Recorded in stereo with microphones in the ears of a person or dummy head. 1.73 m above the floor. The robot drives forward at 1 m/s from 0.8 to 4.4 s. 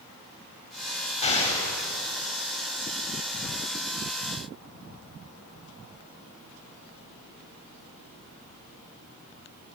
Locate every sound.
1.2 s an explosion: 30° left (ahead or behind), 7.5 m